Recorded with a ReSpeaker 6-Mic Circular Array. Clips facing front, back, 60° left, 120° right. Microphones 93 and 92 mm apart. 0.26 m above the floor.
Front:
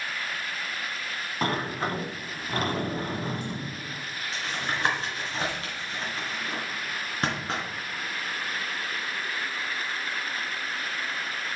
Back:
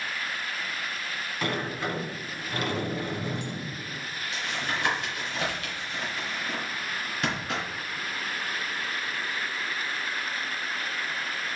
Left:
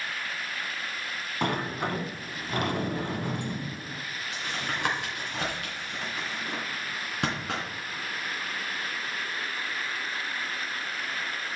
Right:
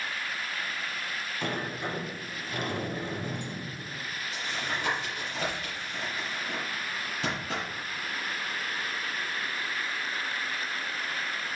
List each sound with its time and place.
1.4 s a sliding door: 45° left, 1.2 m
4.3 s tapping: 50° left, 3 m